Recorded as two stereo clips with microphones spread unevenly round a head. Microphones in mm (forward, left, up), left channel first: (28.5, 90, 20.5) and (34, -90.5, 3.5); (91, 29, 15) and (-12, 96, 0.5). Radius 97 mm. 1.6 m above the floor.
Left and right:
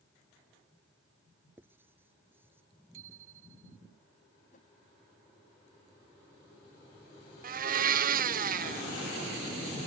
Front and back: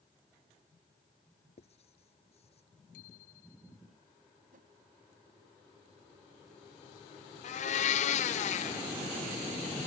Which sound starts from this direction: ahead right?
A blender, at 7.4 s.